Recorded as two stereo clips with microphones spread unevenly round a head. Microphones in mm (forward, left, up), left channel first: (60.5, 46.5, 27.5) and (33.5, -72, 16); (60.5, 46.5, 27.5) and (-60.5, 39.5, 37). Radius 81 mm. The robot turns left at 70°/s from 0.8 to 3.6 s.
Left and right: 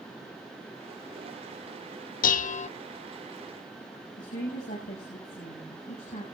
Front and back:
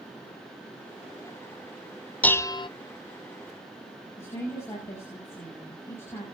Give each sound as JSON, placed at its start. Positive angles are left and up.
{"t": 2.2, "sound": "dishes clattering", "azimuth_deg": 80, "distance_m": 0.6}
{"t": 4.2, "sound": "a woman speaking", "azimuth_deg": 75, "distance_m": 6.5}